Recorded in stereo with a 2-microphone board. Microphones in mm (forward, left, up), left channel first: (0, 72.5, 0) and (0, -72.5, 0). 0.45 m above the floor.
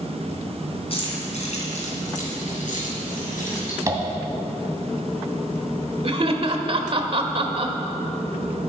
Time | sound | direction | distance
0.9 | keys jangling | 45° left (ahead or behind) | 3.5 m
3.9 | tapping | 25° right (ahead or behind) | 2 m
6.0 | laughter | 45° right (ahead or behind) | 1.3 m